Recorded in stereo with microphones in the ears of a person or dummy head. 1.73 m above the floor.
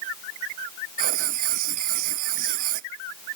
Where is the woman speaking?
I don't hear a woman speaking.